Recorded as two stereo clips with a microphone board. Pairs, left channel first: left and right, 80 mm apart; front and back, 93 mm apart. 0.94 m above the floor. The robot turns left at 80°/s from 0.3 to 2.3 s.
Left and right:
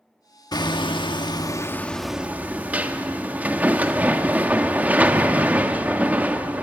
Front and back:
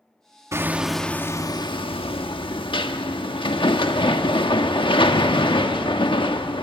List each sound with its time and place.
0.5 s hammering: 125° left, 1.4 m; by 6.6 s 20° right, 1.4 m